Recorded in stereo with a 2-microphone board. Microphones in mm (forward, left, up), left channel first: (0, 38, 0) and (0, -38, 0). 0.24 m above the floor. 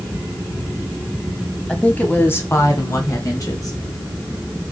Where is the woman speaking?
15° left (ahead or behind), 1.7 m; by 3.8 s 50° left (ahead or behind), 4 m.